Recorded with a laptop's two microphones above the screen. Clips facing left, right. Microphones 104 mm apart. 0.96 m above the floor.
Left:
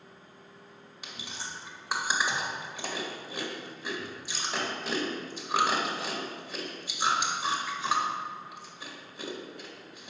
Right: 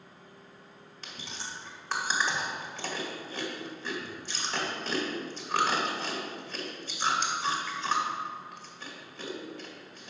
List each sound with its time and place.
1.0 s chewing: 10° left (ahead or behind), 1.9 m